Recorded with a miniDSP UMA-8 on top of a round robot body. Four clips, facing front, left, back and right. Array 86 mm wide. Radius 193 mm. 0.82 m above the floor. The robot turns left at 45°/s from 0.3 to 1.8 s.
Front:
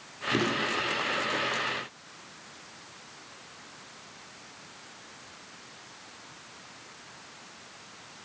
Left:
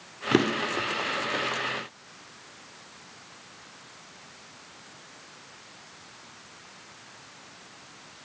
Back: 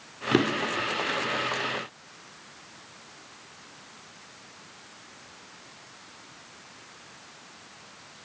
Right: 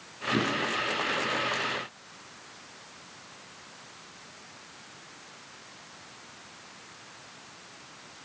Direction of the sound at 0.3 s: 130° left.